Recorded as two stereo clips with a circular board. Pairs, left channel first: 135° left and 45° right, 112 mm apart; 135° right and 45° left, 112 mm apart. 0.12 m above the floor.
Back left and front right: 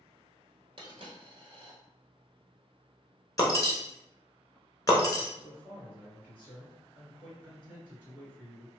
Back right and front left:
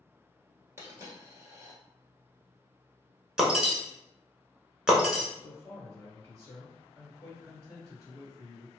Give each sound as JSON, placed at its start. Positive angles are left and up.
{"t": 0.8, "sound": "a dropped coin", "azimuth_deg": -20, "distance_m": 1.2}
{"t": 3.4, "sound": "breaking glass", "azimuth_deg": 125, "distance_m": 0.7}
{"t": 5.4, "sound": "a man speaking", "azimuth_deg": 15, "distance_m": 2.0}